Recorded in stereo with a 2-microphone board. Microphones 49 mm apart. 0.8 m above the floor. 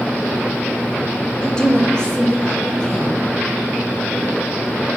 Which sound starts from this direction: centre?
A woman speaking, at 1.4 s.